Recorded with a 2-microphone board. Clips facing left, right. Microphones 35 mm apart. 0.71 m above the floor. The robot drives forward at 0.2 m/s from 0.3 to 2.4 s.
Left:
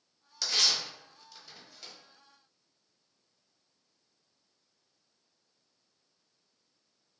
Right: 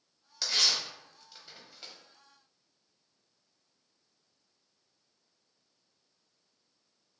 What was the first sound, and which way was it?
Tearing paper, 10° right (ahead or behind).